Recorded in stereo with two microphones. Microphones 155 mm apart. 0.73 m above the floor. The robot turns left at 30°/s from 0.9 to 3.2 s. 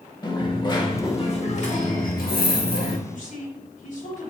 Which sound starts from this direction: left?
A woman speaking, at 3.1 s.